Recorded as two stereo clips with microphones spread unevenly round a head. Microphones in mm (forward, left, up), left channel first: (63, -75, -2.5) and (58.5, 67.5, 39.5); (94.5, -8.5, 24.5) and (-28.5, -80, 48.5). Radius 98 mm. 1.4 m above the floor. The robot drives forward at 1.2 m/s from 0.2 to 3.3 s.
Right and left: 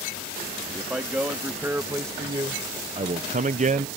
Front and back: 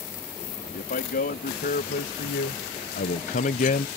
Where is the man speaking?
10° left; by 3.9 s 50° left.